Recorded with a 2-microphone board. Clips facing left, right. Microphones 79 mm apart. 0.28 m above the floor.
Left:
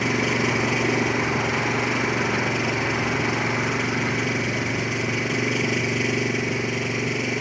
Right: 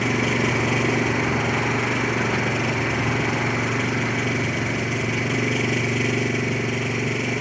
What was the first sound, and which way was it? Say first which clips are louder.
An engine running: right 1 dB; centre (ahead or behind).